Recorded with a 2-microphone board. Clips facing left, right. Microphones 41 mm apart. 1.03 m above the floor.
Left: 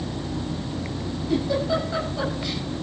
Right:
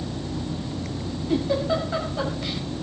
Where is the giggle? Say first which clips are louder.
Even; 20° right (ahead or behind), 5.5 m.